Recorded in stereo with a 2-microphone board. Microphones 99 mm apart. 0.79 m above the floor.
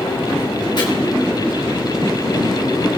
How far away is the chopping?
About 3 m.